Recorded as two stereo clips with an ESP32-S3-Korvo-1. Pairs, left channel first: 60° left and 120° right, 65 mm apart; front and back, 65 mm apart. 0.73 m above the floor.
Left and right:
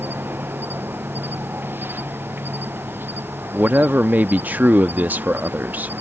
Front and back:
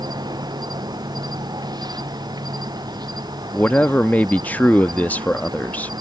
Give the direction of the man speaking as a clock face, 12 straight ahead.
2 o'clock.